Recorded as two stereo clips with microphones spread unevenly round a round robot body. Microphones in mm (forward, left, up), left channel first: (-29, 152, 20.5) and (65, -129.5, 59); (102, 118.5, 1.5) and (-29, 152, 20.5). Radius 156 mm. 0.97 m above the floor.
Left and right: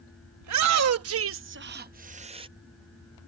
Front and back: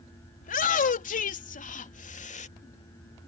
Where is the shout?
40° right; by 2.5 s 5° left.